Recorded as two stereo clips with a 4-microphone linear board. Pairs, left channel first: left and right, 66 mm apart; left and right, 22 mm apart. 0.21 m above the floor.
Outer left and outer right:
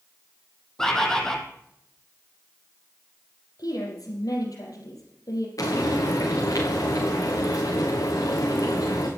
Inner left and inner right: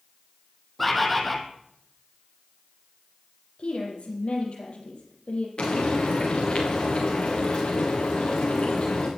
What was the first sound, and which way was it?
A bird, 10° left (ahead or behind).